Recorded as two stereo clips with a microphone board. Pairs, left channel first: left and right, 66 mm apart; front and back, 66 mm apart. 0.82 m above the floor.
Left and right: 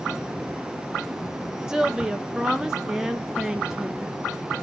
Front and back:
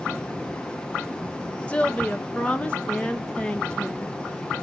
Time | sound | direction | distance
1.7 | a woman speaking | 25° right | 0.8 m